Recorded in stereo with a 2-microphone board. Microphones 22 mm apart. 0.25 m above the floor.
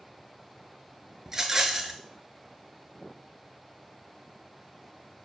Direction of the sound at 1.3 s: 25° right (ahead or behind).